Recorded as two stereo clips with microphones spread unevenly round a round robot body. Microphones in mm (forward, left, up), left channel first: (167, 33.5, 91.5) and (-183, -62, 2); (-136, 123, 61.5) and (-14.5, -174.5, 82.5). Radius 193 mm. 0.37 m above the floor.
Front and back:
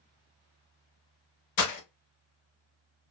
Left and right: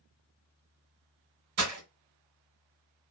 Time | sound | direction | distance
1.6 | breaking glass | 25° right | 0.9 m